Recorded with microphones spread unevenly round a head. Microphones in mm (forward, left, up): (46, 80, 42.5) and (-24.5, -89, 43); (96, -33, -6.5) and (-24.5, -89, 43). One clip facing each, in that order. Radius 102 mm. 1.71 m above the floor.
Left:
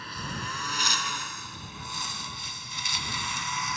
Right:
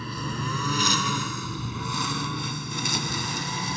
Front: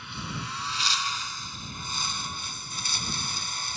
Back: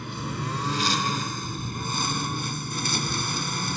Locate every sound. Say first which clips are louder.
0.0 s a lawn mower: right 6 dB, back 6 dB; 125° right; by 3.8 s 175° right